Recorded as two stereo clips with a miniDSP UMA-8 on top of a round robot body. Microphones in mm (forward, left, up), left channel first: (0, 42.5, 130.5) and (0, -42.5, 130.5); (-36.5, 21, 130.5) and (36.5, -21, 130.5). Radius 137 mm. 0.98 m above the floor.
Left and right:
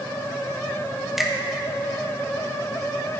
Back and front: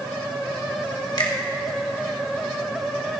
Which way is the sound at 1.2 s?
175° right.